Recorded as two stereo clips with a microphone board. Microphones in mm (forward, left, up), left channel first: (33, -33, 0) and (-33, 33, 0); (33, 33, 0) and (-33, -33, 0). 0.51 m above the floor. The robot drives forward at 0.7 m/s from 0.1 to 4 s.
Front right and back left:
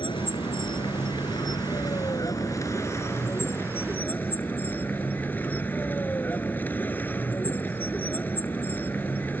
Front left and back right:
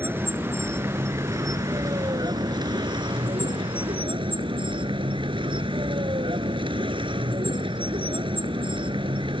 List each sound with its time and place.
0.0 s a vehicle: 70° right; by 9.4 s 115° right